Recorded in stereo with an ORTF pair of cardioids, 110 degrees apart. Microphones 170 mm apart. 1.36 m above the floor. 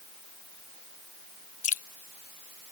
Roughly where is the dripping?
Ahead left.